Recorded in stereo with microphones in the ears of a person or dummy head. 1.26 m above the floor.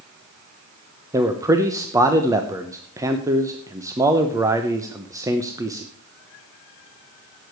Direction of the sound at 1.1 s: 15° right (ahead or behind).